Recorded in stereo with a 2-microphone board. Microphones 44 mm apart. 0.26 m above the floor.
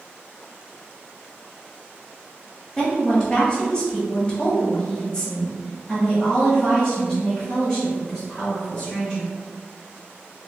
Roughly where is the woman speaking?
Centre.